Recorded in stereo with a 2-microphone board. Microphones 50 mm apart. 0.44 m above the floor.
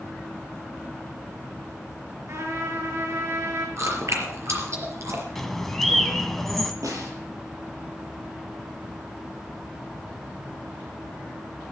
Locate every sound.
2.3 s a trumpet: 60° right (ahead or behind), 6.5 m
3.8 s chewing: 65° right (ahead or behind), 4.5 m
5.3 s a bird: 5° left (ahead or behind), 1.2 m
6.8 s a snare drum: 80° right, 6 m